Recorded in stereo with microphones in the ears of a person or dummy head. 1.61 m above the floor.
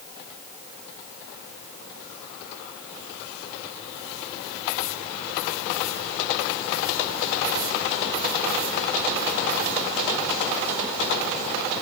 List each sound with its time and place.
Only background noise.